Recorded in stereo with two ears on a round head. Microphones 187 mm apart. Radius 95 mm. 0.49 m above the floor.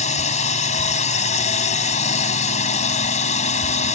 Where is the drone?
35° left (ahead or behind).